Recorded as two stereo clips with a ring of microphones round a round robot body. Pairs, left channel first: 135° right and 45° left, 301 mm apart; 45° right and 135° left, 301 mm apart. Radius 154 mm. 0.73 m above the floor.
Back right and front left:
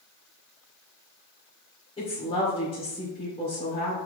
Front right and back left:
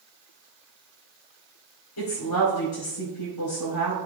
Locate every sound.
2.0 s a woman speaking: 60° right, 2.5 m